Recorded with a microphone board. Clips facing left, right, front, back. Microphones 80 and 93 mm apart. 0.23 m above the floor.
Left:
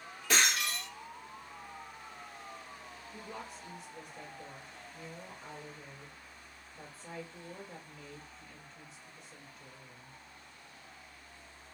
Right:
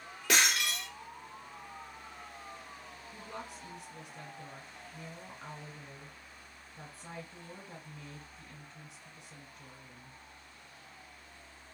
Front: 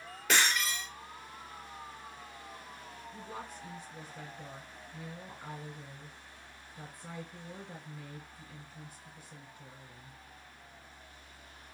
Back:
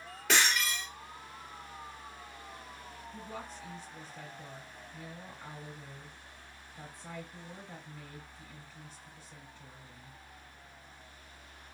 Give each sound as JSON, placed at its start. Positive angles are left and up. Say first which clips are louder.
{"t": 0.3, "sound": "breaking glass", "louder": "right 1 dB, even", "azimuth_deg": -85, "distance_m": 2.0}
{"t": 3.1, "sound": "a woman speaking", "louder": "right 1 dB, back 1 dB", "azimuth_deg": -85, "distance_m": 2.5}